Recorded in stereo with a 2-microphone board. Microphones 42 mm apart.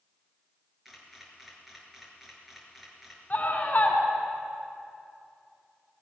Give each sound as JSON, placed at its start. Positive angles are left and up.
{"t": 0.8, "sound": "a camera shutter", "side_deg": -5, "distance_m": 5.0}
{"t": 3.3, "sound": "a scream", "side_deg": 45, "distance_m": 3.5}